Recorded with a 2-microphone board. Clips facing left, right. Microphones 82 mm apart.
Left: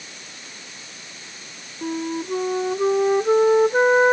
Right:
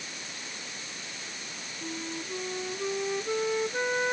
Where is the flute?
55° left (ahead or behind).